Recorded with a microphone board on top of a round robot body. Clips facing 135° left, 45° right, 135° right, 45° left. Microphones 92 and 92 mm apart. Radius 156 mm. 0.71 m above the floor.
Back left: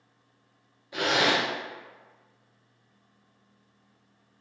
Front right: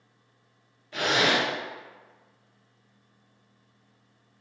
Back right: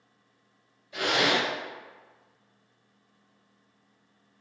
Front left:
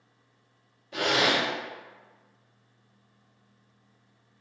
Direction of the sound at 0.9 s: 55° left.